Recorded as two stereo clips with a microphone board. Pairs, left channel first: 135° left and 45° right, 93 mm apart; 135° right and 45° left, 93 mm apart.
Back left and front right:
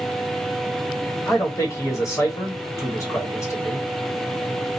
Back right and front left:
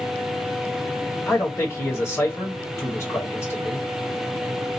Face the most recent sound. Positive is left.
turn(degrees=180)